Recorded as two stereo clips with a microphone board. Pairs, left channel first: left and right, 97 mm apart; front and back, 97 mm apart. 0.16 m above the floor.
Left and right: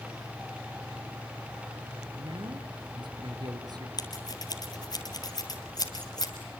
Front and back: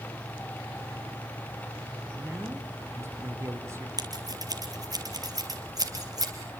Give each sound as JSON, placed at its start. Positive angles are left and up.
{"t": 2.1, "sound": "a man speaking", "azimuth_deg": -115, "distance_m": 3.0}
{"t": 4.0, "sound": "scissors", "azimuth_deg": 135, "distance_m": 3.5}